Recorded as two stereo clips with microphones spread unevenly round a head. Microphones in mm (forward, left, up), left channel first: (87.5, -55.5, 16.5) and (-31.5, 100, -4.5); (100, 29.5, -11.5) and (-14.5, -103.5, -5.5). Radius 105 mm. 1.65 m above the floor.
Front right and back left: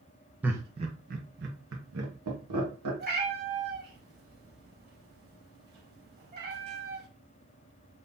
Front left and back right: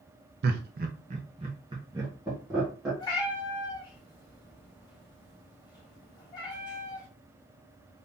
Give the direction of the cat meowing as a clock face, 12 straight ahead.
8 o'clock.